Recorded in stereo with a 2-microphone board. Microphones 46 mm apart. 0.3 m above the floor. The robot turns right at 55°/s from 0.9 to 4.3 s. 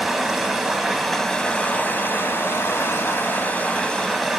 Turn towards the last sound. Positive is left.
turn(degrees=180)